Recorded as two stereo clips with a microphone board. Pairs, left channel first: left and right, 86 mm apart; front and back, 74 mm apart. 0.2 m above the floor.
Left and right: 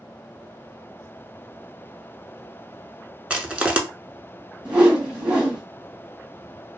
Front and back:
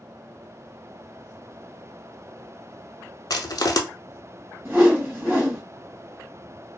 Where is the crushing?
15° right, 0.5 m.